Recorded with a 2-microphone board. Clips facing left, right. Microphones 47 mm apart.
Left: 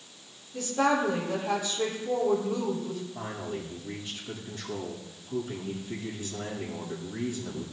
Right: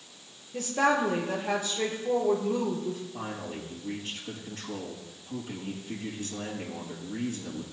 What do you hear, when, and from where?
0.5 s a woman speaking: 60° right (ahead or behind), 5 m
3.1 s a man speaking: 75° right (ahead or behind), 6.5 m